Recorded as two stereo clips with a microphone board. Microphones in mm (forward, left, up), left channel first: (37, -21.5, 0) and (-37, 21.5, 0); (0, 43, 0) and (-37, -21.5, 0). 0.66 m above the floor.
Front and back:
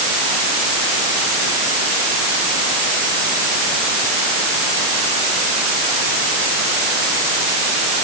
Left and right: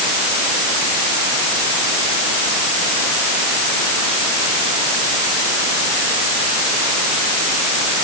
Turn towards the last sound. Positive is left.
No sound to turn to.